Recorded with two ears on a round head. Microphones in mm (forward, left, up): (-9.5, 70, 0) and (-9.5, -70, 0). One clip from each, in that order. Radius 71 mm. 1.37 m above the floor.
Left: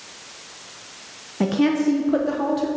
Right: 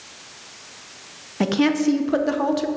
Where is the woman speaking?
30° right (ahead or behind), 0.7 m.